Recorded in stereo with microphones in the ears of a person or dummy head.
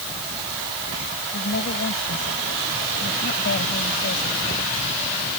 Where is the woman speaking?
55° left (ahead or behind).